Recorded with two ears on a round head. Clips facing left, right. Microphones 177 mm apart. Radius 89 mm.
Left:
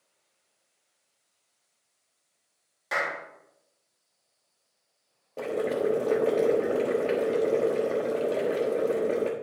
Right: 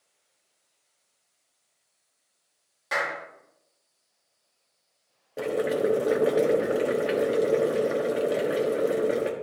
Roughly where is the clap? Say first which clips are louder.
Right 1 dB; centre.